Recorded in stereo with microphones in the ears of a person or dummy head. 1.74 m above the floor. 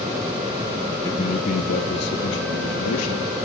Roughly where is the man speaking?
Centre.